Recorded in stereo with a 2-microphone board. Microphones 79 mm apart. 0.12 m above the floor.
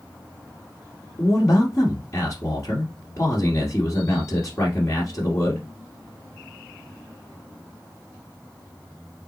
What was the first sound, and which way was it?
A man speaking, 35° left (ahead or behind).